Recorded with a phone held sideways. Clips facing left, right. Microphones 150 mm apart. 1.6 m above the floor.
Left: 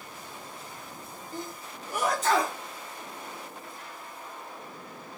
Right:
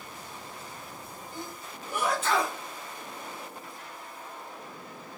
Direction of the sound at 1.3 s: 40° left (ahead or behind).